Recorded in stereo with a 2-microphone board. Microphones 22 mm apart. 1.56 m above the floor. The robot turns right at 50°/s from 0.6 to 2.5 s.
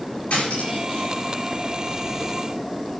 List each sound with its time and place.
0.3 s cutlery clinking: 55° left (ahead or behind), 5 m; by 1.1 s 30° left (ahead or behind), 5 m